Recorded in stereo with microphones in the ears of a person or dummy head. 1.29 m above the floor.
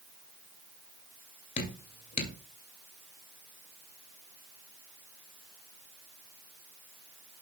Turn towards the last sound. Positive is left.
turn(degrees=40)  # may be behind; listen again after turning